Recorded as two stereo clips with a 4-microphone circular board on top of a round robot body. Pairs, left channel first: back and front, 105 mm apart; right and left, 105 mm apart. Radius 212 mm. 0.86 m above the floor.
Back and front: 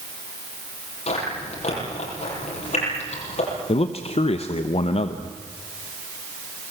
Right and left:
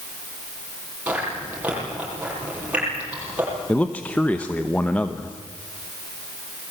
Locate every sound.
1.1 s chewing: 165° left, 9 m
3.7 s a man speaking: 165° right, 1.1 m